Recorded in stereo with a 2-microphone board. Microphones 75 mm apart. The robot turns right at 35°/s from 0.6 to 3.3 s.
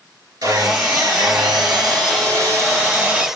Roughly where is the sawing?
Behind right.